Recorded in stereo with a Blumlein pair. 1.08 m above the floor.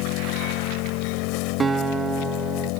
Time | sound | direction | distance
0.0 | an engine running | 40° left | ?
1.6 | a guitar | 15° right | ?